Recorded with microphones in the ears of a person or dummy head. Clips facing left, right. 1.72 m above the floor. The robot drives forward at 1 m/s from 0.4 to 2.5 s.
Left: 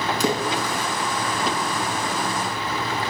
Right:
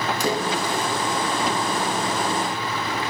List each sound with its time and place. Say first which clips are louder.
0.2 s a splash: left 1 dB; 65° left (ahead or behind), 6 m; by 0.8 s 60° left (ahead or behind), 6 m